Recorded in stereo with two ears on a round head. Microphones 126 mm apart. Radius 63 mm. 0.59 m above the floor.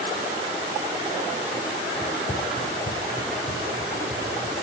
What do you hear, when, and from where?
2.0 s running footsteps: 5° left (ahead or behind), 0.5 m; by 4.5 s 45° left (ahead or behind), 3 m